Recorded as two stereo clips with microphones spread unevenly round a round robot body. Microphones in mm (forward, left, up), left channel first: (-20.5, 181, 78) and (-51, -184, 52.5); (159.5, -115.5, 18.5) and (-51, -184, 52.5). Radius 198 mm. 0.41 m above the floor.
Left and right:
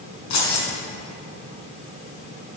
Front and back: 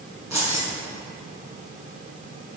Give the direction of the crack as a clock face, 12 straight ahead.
I don't hear a crack.